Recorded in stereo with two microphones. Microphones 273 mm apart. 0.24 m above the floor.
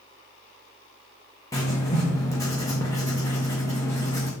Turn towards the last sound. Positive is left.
turn(degrees=10)  # may be behind; listen again after turning